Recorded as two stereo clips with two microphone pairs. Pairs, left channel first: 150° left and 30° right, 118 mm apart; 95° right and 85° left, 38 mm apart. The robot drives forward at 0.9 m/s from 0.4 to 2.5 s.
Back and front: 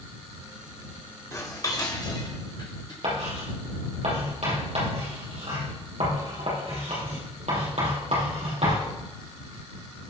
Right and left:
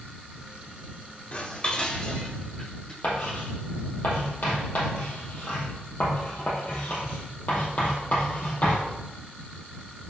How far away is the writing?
About 4.5 m.